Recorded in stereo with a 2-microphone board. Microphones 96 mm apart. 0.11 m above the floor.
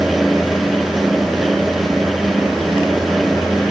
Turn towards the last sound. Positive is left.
No sound to turn to.